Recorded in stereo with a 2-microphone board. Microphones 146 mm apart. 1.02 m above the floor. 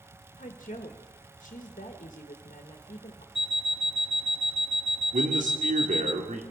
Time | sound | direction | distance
0.4 | a woman speaking | 60° left (ahead or behind) | 1.5 m
3.4 | an alarm clock | 5° right (ahead or behind) | 0.6 m
5.1 | a man speaking | 60° right (ahead or behind) | 2.5 m